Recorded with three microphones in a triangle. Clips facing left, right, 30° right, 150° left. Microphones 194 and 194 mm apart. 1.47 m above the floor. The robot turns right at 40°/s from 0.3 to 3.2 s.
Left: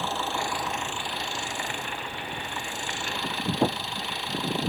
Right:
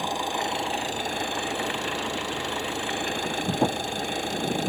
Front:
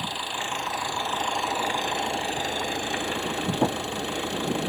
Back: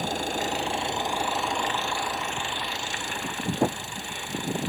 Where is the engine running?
165° right; by 4.7 s 50° right.